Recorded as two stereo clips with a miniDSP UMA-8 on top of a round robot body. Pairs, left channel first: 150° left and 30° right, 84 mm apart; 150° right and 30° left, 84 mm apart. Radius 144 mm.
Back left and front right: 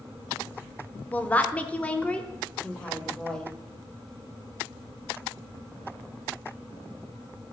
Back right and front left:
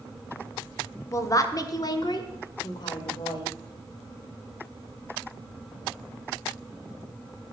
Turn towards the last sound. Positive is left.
turn(degrees=-130)